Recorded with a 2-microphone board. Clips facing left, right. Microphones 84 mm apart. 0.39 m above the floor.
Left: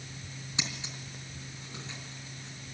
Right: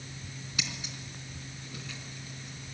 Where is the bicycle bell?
No bicycle bell in this recording.